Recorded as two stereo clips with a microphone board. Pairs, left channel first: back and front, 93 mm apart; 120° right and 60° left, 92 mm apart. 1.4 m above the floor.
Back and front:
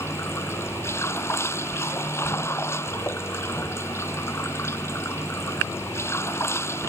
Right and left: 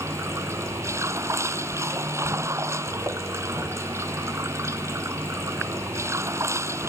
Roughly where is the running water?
Behind left.